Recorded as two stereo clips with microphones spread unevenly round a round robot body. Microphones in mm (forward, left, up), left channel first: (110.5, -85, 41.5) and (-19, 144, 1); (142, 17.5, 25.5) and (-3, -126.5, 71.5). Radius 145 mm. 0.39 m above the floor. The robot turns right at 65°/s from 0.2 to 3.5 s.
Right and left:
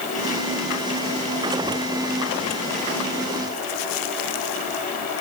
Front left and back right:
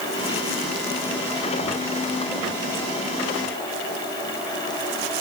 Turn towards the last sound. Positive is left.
No sound to turn to.